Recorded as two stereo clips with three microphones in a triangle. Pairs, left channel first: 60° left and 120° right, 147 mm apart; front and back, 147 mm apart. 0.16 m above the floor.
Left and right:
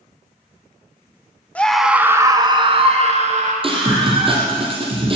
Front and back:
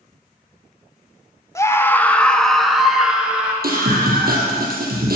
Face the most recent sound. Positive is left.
turn(degrees=-175)